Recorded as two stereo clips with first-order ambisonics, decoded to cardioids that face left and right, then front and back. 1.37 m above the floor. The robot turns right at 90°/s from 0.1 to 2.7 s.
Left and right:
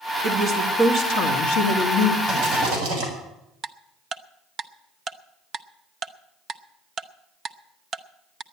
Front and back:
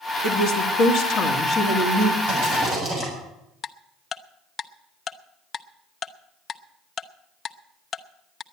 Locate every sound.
0.2 s a woman speaking: 30° right, 2 m; by 2.2 s 145° left, 2 m
2.3 s a rattle: 160° right, 7 m; by 3.1 s 120° right, 7 m
3.6 s ticking: 50° right, 0.5 m